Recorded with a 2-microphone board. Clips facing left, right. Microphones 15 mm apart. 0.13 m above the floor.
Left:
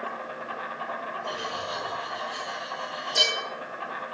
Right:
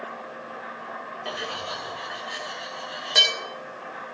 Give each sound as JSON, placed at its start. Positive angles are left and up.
{"t": 0.0, "sound": "an insect", "side_deg": 50, "distance_m": 2.5}
{"t": 1.2, "sound": "cutlery clinking", "side_deg": -80, "distance_m": 6.0}